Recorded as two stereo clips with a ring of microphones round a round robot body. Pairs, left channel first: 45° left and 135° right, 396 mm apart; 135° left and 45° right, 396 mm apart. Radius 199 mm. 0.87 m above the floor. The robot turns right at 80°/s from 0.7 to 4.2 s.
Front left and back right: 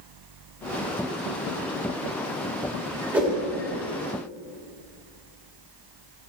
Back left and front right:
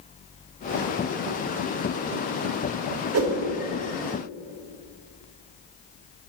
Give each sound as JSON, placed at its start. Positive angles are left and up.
{"t": 3.1, "sound": "a whoosh", "azimuth_deg": -55, "distance_m": 1.1}